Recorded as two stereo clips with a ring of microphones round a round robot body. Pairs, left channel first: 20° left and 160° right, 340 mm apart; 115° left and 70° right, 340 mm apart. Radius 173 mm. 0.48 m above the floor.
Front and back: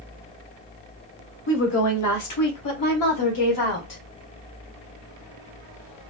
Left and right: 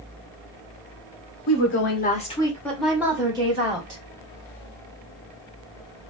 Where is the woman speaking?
75° left, 1.1 m; by 4.0 s straight ahead, 1.7 m.